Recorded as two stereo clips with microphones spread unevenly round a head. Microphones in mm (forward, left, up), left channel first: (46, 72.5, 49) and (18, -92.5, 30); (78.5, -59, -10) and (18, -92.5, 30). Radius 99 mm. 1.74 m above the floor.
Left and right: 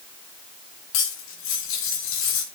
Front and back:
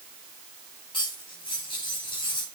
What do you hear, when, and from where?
0.9 s cutlery clinking: 100° left, 2.5 m